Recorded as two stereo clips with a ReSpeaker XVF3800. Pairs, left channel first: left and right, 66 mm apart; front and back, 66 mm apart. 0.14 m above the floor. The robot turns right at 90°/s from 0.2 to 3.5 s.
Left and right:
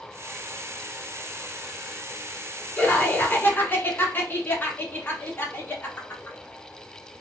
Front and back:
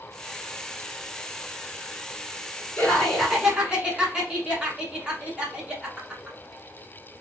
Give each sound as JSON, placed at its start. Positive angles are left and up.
{"t": 2.8, "sound": "laughter", "azimuth_deg": 50, "distance_m": 1.2}